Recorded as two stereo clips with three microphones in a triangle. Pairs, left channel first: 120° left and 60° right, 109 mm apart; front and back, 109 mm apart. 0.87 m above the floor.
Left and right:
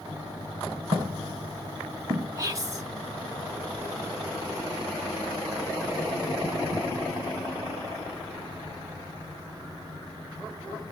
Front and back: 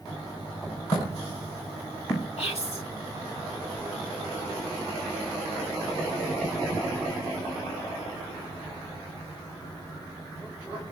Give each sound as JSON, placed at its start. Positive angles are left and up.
{"t": 0.9, "sound": "footsteps", "azimuth_deg": -40, "distance_m": 4.0}
{"t": 2.4, "sound": "whispering", "azimuth_deg": -5, "distance_m": 1.9}